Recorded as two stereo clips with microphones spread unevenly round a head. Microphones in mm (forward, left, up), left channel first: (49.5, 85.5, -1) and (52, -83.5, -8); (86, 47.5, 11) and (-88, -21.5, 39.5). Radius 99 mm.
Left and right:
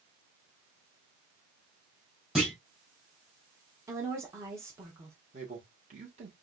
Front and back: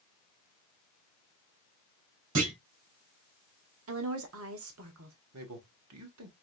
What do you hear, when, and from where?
2.4 s a clunk: 175° right, 1.9 m
3.9 s a woman speaking: 165° right, 1.1 m
5.3 s a man speaking: 145° right, 1.7 m